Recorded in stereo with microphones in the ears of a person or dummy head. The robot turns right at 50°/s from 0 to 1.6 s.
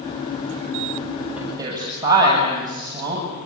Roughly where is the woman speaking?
Centre.